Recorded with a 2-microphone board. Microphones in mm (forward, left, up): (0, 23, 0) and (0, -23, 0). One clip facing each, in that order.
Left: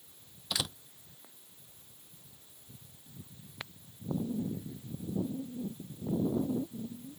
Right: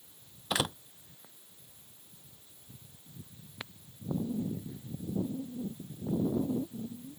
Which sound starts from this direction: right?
A door slam, at 0.5 s.